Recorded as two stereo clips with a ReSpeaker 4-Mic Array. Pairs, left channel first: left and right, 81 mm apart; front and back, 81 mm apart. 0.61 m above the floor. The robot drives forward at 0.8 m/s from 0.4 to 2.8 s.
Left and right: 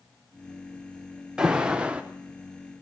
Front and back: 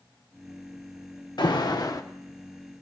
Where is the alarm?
10° right, 1.2 m; by 2.0 s 20° right, 0.8 m.